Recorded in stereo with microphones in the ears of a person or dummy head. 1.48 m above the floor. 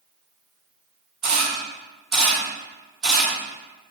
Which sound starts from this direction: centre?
A camera shutter, at 1.2 s.